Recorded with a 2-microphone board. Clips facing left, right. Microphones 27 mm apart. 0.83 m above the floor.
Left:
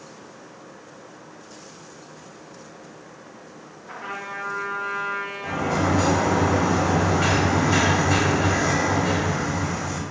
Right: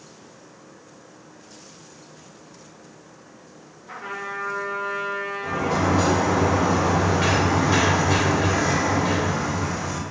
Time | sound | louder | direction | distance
3.9 | a trumpet | right 1 dB | 5° left (ahead or behind) | 1.8 m
5.4 | a sliding door | right 1 dB | 15° right (ahead or behind) | 1.8 m